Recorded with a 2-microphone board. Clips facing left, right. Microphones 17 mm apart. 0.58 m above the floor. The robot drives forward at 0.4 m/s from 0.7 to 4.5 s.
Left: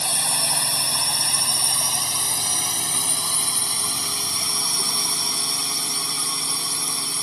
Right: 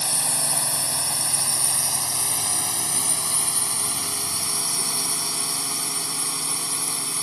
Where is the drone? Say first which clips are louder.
Left 3 dB; 30° left (ahead or behind); by 7.2 s 25° left (ahead or behind).